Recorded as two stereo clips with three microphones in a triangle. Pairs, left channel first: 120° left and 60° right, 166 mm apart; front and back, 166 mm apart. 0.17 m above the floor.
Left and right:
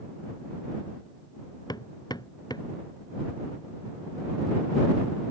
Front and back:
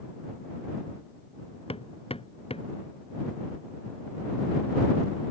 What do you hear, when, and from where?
1.7 s hammering: 55° left